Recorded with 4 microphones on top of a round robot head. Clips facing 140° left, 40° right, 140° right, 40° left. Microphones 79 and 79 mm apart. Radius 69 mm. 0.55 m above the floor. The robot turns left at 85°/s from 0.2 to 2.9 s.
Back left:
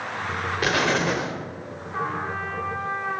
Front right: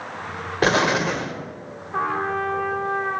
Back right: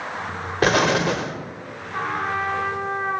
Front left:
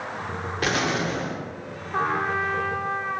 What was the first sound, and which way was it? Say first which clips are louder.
An explosion: front right 4 dB, back right 7 dB; 95° right.